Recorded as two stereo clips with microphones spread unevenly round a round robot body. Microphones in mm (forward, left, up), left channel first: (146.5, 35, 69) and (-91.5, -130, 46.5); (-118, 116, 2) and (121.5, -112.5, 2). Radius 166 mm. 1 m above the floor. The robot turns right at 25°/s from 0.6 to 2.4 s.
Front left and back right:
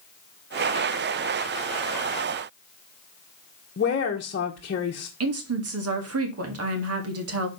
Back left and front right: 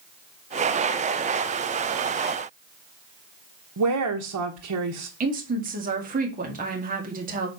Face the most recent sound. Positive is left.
turn(degrees=-110)